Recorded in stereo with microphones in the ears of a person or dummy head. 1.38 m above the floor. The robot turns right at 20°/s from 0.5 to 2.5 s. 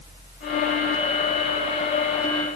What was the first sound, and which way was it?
Only background noise.